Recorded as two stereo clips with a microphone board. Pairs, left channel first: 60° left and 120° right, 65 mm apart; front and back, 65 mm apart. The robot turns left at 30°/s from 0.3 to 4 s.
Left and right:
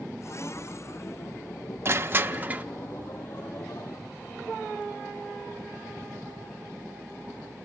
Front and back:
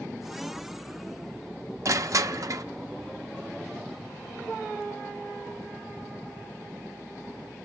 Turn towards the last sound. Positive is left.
turn(degrees=135)